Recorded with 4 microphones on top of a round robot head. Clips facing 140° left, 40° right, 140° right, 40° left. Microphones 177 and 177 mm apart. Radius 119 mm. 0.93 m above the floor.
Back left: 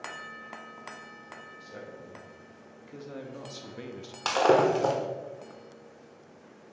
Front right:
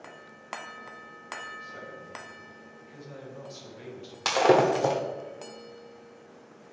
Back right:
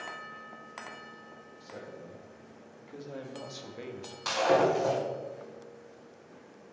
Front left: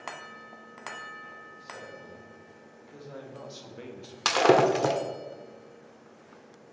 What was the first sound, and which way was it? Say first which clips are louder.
A man speaking: even, back right 1 dB; 160° left.